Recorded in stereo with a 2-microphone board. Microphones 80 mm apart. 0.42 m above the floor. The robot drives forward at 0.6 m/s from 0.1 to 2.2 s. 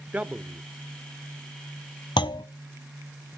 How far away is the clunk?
About 0.8 m.